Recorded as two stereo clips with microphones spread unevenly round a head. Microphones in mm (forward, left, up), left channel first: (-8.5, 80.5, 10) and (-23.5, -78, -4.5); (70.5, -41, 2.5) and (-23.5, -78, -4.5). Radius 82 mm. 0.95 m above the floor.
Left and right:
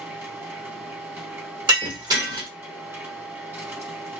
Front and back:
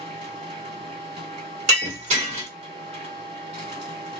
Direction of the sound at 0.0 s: 170° right.